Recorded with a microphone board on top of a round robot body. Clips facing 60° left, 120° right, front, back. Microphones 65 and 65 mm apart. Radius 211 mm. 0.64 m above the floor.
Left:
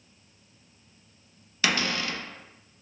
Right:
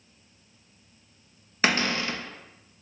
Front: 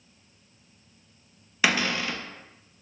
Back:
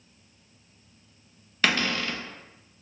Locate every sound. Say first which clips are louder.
1.6 s a cupboard door: right 2 dB, front 1 dB; 80° right, 0.9 m